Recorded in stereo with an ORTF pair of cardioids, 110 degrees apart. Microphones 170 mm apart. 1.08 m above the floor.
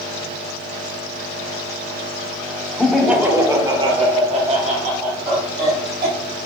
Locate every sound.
2.8 s laughter: straight ahead, 1.2 m; by 6.4 s 70° right, 2.5 m